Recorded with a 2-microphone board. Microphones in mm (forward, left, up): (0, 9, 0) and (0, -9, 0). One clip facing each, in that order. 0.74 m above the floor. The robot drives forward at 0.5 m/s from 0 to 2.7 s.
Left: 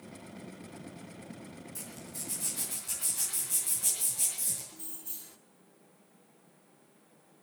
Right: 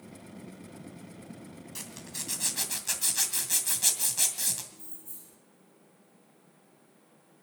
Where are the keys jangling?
70° left (ahead or behind), 1.1 m.